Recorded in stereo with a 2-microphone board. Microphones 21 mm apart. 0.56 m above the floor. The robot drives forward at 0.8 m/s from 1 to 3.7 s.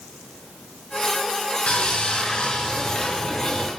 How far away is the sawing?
About 2.5 m.